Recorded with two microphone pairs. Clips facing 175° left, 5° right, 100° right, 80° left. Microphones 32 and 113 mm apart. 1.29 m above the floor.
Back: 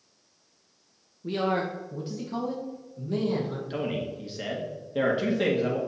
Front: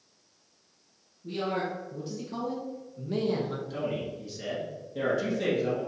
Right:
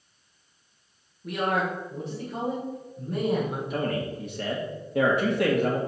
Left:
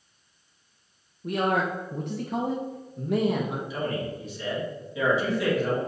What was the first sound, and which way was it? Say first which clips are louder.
A man speaking: back 4 dB, left 1 dB; 140° left.